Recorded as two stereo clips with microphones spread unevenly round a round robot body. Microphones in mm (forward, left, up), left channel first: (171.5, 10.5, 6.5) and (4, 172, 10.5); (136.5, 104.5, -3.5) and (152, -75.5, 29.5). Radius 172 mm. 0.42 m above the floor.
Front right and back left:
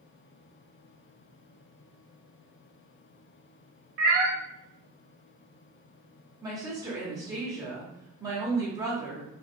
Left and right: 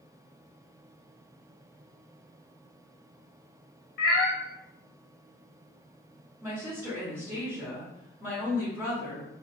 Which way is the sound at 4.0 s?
100° left.